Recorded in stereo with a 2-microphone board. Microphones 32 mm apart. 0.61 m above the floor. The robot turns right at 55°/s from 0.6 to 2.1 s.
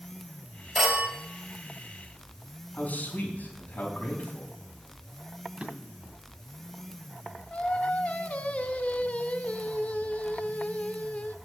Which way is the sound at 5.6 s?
40° right (ahead or behind).